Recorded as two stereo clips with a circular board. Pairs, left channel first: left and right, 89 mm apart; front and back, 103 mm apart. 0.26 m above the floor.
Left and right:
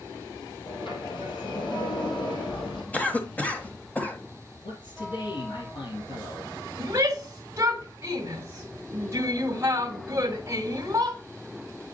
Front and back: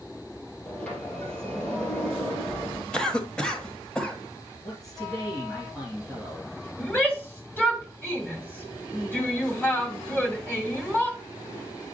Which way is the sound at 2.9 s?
65° left.